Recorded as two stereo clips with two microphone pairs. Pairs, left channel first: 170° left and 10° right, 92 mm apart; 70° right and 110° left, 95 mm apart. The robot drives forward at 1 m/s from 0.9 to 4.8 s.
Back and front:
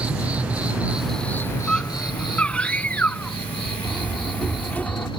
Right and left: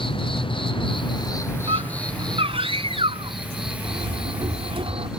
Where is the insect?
85° right; by 5.2 s 170° right.